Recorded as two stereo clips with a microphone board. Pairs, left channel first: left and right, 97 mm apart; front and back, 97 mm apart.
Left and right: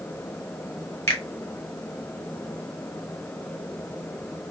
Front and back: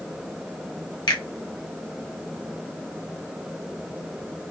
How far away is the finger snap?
About 1.1 m.